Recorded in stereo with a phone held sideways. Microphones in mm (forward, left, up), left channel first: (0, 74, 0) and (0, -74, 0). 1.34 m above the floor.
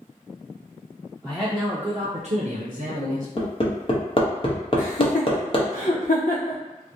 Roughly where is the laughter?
Left.